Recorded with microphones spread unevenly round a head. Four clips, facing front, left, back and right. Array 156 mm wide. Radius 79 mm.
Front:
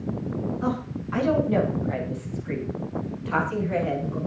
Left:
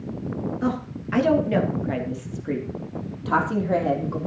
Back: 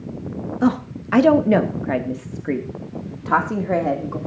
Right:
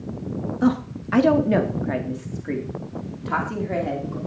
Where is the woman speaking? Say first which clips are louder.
Right 9 dB, back 8 dB; 160° right, 2.5 m; by 4.2 s 160° left, 3.5 m.